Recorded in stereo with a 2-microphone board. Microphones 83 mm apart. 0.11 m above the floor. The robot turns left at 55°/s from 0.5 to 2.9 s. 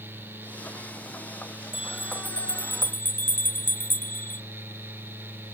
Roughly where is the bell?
Left.